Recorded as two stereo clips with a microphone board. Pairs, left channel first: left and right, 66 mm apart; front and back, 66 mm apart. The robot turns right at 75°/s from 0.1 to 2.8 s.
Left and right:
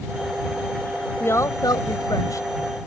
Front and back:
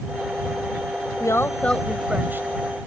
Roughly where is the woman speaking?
Ahead left.